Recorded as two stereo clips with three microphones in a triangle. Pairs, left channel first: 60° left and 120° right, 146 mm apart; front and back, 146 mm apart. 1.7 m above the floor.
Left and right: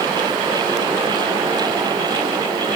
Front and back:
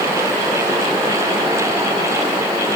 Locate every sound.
Only background noise.